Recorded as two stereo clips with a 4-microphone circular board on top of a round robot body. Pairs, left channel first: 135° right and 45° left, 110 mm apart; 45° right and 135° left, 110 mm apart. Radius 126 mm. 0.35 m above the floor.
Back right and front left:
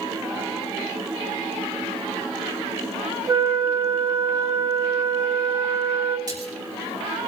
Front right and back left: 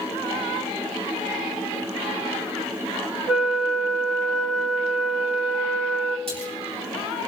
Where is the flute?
60° left, 1.9 m.